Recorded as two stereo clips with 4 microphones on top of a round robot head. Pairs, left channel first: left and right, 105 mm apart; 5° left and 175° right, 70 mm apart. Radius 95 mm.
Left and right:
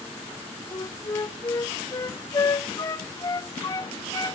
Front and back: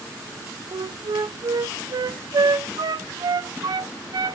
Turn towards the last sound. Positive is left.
turn(degrees=150)